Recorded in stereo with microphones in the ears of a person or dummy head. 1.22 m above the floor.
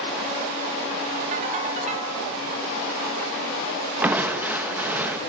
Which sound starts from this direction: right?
A ringtone, at 1.3 s.